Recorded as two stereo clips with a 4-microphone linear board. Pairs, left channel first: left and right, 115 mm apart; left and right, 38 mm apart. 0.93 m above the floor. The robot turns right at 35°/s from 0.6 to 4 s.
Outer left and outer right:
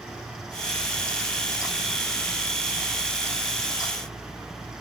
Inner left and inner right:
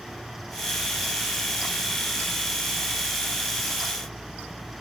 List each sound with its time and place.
Only background noise.